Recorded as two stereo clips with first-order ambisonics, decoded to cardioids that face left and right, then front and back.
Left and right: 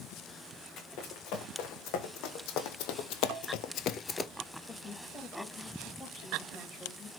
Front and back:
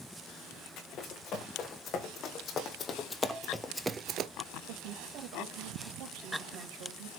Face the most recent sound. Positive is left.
turn(degrees=165)